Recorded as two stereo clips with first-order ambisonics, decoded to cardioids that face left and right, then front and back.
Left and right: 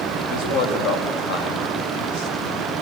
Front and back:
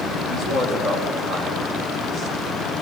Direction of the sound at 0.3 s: 105° left.